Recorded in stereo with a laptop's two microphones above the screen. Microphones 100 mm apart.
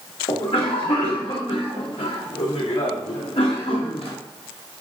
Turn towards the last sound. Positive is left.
turn(degrees=70)  # may be behind; listen again after turning